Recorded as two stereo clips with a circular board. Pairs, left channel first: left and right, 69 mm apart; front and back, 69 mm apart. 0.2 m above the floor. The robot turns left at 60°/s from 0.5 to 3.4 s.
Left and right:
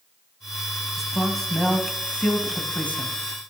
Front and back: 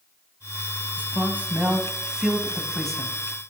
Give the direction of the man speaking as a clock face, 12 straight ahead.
6 o'clock.